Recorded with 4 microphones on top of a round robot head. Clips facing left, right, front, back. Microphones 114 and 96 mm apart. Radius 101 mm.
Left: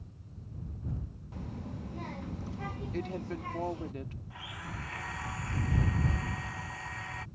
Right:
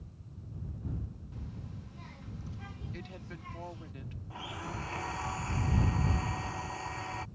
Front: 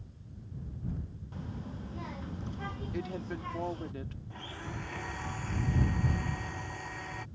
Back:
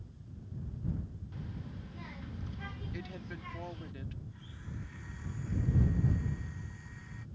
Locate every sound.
1.3 s a child speaking: 55° left
2.9 s a woman speaking: 50° left
4.3 s a blender: 35° right